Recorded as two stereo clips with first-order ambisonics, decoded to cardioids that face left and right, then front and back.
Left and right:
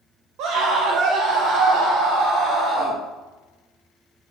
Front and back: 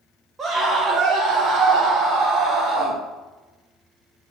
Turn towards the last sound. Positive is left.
turn(degrees=-125)